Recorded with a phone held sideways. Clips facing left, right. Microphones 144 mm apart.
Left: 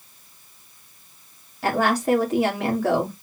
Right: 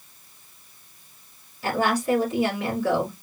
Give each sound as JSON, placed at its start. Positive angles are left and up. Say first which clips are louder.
{"t": 1.6, "sound": "a woman speaking", "louder": "left 2 dB", "side_deg": 70, "distance_m": 2.0}